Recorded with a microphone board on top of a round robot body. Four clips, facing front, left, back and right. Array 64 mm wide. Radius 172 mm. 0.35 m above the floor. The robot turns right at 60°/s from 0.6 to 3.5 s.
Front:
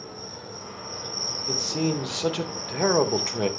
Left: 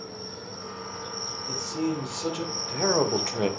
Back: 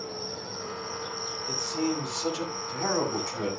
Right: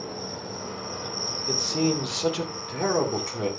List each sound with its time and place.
0.0 s an insect: 100° right, 0.7 m; by 3.6 s 75° left, 0.7 m
1.5 s a man speaking: 70° right, 2.5 m; by 3.5 s 50° left, 2.5 m